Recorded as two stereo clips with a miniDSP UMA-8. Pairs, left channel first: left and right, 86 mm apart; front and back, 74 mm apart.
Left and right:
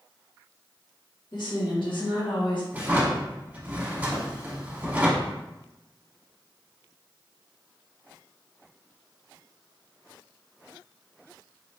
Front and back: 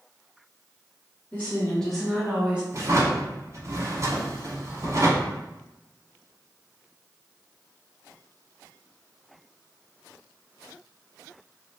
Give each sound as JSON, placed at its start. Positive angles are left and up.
{"t": 1.3, "sound": "a woman speaking", "azimuth_deg": 65, "distance_m": 1.6}
{"t": 2.7, "sound": "a drawer", "azimuth_deg": -155, "distance_m": 0.9}